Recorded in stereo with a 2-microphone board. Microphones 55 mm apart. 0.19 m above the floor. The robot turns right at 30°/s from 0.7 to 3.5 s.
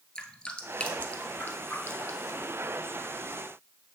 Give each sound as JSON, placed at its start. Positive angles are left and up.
{"t": 0.1, "sound": "dripping", "side_deg": 20, "distance_m": 1.2}